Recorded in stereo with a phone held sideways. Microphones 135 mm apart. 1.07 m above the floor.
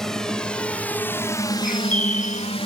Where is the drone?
5° left (ahead or behind); by 2.7 s 40° left (ahead or behind).